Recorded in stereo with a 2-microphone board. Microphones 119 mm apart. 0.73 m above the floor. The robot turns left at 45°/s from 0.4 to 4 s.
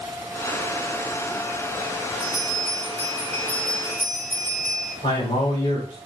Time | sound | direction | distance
2.2 | a bell | 155° left | 2 m
5.0 | a man speaking | 55° left (ahead or behind) | 2.5 m